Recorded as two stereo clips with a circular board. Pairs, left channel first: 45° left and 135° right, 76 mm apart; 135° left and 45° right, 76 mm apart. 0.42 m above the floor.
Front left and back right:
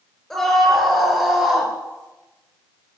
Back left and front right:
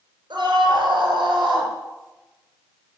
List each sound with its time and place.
0.3 s a scream: 40° right, 9.5 m; by 1.7 s 55° right, 9.5 m